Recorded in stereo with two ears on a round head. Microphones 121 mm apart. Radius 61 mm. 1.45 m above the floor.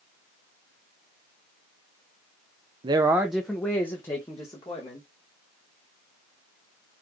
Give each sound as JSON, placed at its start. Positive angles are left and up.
{"t": 2.8, "sound": "a man speaking", "side_deg": -35, "distance_m": 0.5}